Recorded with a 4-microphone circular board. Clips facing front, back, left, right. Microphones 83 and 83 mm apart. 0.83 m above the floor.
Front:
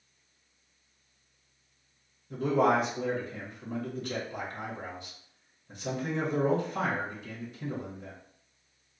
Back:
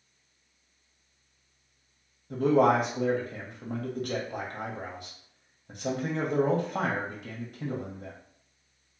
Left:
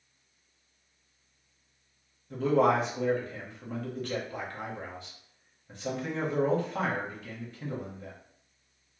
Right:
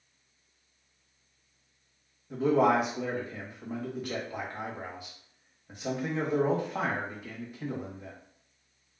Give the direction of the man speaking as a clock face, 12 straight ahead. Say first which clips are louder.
Back 3 dB, even; 6 o'clock.